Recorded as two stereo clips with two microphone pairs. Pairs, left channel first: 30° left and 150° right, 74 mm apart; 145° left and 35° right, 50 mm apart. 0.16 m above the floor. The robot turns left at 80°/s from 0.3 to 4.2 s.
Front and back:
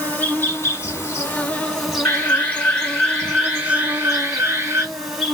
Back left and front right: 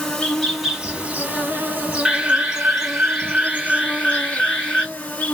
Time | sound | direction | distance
0.0 | an insect | 65° left | 1.4 m
2.0 | an alarm | 15° left | 1.8 m